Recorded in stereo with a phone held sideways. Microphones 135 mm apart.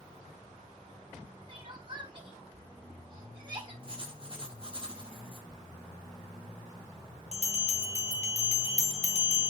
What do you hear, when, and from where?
1.5 s crying: 40° right (ahead or behind), 1.5 m
3.8 s writing: 40° right (ahead or behind), 1.0 m
5.5 s whispering: 35° right (ahead or behind), 1.4 m
7.3 s a bell: 50° left (ahead or behind), 0.9 m